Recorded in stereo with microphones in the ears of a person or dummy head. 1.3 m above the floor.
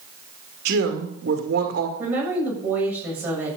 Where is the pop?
No pop in this recording.